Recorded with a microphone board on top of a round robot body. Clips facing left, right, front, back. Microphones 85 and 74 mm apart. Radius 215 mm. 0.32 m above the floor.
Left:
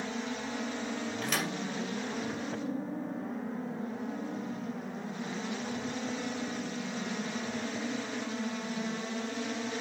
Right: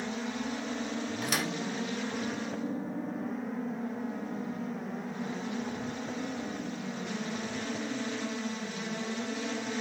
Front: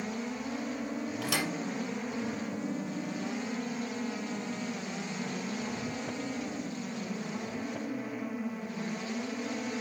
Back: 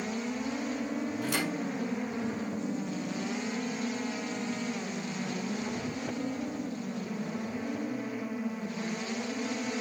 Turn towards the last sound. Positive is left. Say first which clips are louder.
# right 1 dB, front 1 dB
turn(degrees=-10)